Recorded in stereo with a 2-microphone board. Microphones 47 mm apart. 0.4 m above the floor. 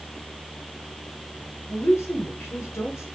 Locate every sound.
1.7 s a woman speaking: 75° left (ahead or behind), 5.5 m